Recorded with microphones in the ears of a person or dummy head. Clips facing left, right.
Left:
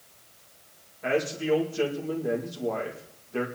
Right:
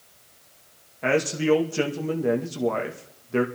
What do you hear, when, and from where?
1.0 s a man speaking: 75° right (ahead or behind), 2.0 m